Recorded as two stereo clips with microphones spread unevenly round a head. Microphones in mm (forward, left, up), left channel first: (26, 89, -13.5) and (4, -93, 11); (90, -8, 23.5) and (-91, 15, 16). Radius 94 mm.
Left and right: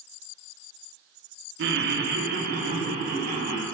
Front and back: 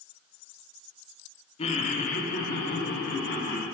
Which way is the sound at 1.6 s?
70° right.